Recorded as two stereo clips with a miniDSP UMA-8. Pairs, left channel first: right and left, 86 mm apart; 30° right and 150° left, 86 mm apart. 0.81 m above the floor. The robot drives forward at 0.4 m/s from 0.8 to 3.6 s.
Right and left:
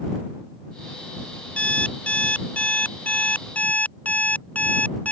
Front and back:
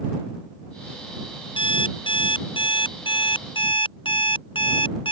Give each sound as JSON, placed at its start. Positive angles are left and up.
{"t": 1.6, "sound": "an alarm clock", "azimuth_deg": -10}